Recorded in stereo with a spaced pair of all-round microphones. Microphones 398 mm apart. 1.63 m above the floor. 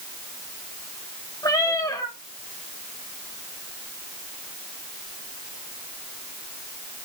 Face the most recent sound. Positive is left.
turn(degrees=10)  # may be behind; listen again after turning